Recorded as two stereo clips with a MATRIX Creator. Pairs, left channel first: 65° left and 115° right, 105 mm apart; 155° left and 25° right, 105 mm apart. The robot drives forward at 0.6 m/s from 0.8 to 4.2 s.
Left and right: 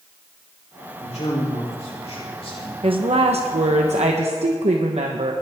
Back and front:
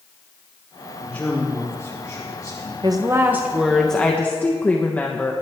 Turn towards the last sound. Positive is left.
turn(degrees=-130)